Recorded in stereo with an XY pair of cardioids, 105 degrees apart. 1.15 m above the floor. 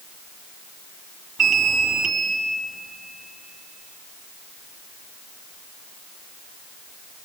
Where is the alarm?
55° right, 2.5 m.